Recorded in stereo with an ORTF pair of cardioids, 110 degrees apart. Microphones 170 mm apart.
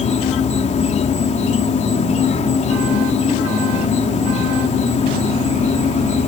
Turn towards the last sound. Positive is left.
turn(degrees=45)